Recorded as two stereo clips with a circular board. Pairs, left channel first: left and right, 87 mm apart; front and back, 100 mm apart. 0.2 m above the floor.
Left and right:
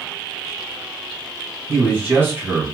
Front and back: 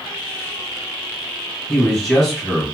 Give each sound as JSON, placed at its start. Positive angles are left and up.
{"t": 1.7, "sound": "a man speaking", "azimuth_deg": -75, "distance_m": 1.5}